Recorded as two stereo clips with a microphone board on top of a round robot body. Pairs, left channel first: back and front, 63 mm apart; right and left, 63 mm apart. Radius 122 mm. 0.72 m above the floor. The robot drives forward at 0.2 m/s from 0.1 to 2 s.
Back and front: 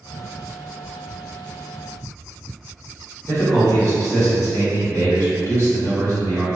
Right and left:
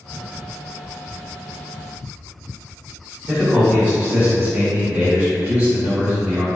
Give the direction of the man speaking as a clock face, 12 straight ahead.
7 o'clock.